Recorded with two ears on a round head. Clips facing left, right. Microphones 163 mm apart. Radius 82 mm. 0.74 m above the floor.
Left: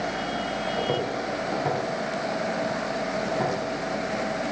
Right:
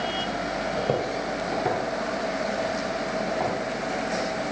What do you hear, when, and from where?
0.8 s footsteps: 30° right (ahead or behind), 0.8 m; by 3.5 s 10° left (ahead or behind), 2.5 m